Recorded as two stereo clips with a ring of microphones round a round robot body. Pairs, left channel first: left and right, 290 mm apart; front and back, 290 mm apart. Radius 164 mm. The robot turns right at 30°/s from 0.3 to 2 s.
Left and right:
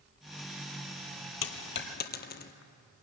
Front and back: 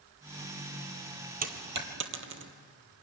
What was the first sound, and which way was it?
A dropped coin, 125° left.